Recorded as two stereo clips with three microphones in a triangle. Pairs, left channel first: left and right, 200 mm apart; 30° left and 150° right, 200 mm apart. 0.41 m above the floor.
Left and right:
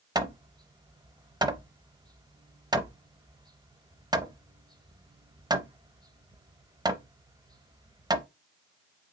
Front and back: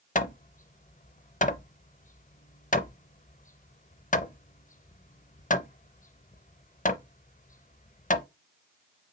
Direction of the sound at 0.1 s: 20° right.